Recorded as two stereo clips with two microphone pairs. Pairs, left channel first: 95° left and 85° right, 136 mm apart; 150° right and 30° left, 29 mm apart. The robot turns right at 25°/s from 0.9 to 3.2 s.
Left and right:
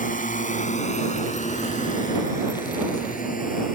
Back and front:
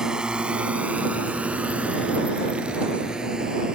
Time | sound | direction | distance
0.0 | a drone | 95° left | ?